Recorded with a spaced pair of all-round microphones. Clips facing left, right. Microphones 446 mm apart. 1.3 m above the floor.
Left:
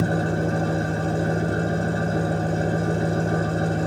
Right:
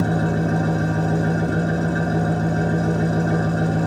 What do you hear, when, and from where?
0.0 s an engine running: 70° right (ahead or behind), 1.9 m